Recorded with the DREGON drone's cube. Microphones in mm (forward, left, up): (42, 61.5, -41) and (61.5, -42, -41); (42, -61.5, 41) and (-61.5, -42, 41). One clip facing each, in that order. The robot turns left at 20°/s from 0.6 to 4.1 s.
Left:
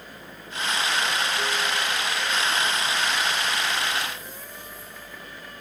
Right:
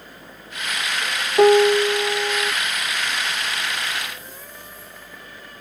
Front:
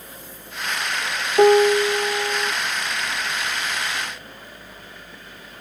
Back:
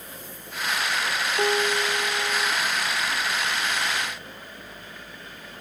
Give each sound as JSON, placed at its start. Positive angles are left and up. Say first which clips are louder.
{"t": 1.4, "sound": "a piano", "louder": "right 14 dB, front 12 dB", "azimuth_deg": -55}